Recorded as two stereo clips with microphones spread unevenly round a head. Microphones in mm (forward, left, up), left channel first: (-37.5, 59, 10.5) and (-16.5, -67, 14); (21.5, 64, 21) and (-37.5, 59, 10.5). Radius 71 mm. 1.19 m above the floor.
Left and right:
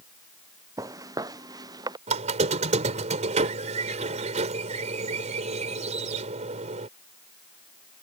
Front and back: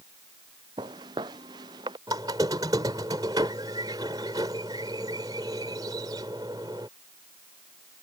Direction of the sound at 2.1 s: 120° right.